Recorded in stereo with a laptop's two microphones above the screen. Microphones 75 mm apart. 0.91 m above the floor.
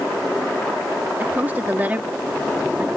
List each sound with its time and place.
1.2 s a woman speaking: 20° right (ahead or behind)